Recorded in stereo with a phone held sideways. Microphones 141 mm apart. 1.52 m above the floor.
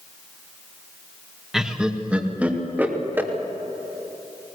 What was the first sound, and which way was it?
Laughter, 5° right (ahead or behind).